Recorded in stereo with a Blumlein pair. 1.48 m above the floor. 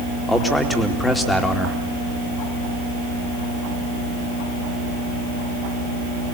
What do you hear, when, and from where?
0.3 s a man speaking: 5° left, 3 m